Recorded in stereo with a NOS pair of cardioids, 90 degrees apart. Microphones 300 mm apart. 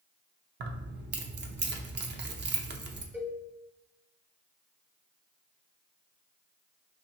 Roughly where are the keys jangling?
Ahead right.